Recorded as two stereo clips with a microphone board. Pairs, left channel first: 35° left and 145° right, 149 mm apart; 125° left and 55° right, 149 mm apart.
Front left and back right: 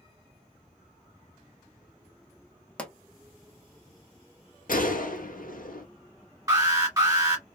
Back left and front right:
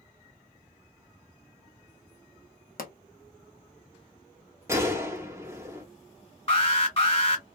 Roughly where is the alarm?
Behind left.